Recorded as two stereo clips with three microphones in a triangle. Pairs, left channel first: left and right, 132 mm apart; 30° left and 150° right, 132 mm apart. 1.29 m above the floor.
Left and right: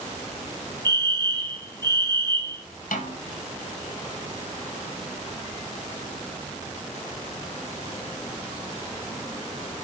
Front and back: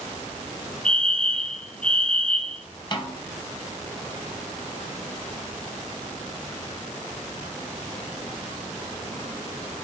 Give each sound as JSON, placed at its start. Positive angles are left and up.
{"t": 0.8, "sound": "a fire alarm", "azimuth_deg": -50, "distance_m": 1.2}
{"t": 2.9, "sound": "a snare drum", "azimuth_deg": 85, "distance_m": 1.7}